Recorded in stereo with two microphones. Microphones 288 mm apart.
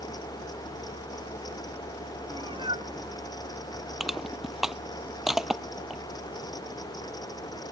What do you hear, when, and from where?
2.3 s a cat meowing: 15° right (ahead or behind)
4.0 s crushing: centre (ahead or behind)